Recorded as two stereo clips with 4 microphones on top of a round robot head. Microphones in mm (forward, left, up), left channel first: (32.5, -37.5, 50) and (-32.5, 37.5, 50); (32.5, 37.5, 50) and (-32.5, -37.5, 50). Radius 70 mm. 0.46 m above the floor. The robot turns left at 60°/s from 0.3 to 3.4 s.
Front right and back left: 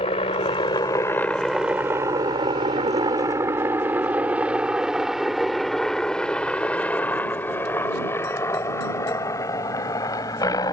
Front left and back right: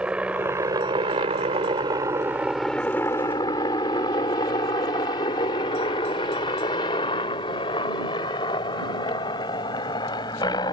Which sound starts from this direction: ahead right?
A helicopter, at 0.0 s.